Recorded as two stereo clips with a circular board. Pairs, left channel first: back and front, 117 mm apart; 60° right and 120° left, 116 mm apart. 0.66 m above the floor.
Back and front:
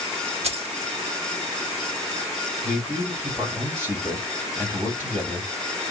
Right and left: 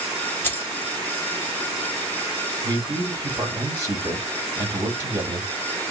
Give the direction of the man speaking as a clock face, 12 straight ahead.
10 o'clock.